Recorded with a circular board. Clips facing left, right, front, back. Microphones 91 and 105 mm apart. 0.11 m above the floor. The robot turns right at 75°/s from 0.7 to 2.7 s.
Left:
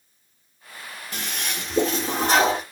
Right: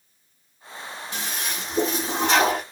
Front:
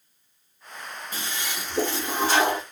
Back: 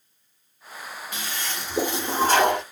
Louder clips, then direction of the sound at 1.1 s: Left 1 dB, even; 50° left.